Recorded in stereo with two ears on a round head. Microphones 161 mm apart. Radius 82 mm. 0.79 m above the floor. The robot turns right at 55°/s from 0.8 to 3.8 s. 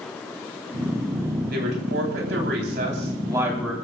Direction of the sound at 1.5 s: 120° right.